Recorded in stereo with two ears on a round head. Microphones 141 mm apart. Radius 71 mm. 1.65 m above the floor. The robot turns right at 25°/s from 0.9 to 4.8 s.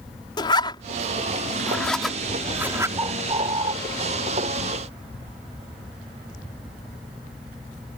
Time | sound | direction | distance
0.4 | a zipper | 30° left (ahead or behind) | ?
3.0 | a bird | 20° right (ahead or behind) | ?